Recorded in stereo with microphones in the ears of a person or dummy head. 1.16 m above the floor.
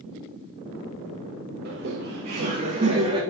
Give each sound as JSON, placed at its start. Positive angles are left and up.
{"t": 1.6, "sound": "laughter", "side_deg": -55, "distance_m": 1.0}